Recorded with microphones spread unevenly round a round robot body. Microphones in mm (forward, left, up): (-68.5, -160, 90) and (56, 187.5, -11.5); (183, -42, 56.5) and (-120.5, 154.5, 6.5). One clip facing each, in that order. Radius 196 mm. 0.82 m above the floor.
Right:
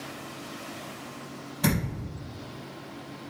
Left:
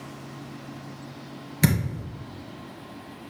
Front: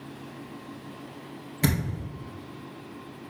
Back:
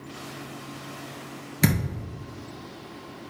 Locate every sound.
1.6 s a thud: 85° left, 3 m